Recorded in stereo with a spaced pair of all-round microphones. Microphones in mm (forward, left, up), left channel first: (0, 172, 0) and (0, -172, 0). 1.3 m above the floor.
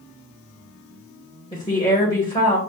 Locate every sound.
1.5 s a woman speaking: 15° left (ahead or behind), 1.3 m